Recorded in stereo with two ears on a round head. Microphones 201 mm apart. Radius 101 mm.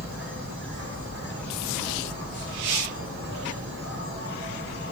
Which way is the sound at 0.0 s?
45° right (ahead or behind).